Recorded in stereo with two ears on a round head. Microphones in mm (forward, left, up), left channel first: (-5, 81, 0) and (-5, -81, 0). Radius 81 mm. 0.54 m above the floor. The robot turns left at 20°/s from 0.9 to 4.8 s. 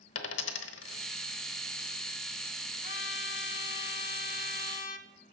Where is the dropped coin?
80° left, 0.9 m.